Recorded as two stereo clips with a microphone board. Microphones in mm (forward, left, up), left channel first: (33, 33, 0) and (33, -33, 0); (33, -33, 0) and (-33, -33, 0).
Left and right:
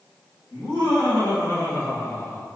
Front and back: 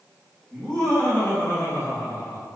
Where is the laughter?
70° left, 1.9 m; by 2.6 s 20° left, 0.9 m.